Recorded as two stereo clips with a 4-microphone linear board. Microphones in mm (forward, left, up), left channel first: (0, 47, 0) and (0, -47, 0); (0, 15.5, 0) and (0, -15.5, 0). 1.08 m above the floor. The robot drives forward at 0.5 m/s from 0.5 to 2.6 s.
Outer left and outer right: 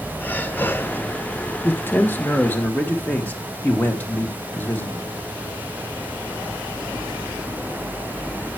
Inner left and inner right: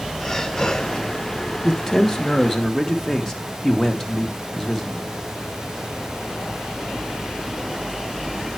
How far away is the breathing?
About 1.0 m.